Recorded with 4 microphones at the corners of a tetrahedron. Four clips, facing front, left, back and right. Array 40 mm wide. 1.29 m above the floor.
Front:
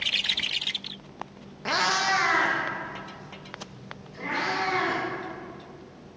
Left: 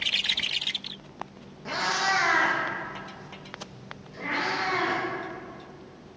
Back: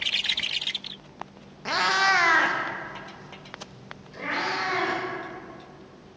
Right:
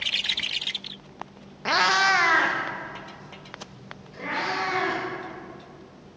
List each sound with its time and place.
1.6 s a cat meowing: 80° right, 0.6 m; by 5.0 s 165° right, 4.5 m